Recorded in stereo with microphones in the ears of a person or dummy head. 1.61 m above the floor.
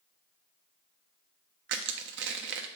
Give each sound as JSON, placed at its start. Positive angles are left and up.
{"t": 1.7, "sound": "crushing", "side_deg": -50, "distance_m": 0.5}